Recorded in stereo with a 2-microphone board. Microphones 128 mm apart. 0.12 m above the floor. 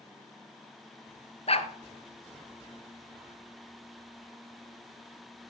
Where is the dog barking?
50° left (ahead or behind), 1.1 m.